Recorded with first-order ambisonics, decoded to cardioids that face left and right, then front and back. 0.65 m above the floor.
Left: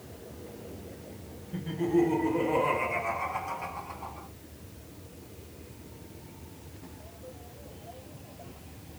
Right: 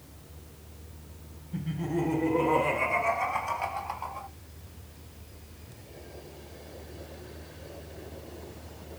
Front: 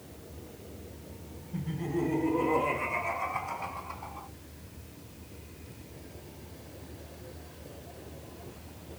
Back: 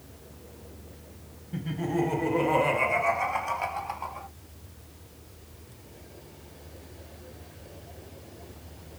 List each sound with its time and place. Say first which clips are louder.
1.5 s laughter: left 6 dB, back 4 dB; 170° left, 3 m; by 4.3 s 145° right, 3.5 m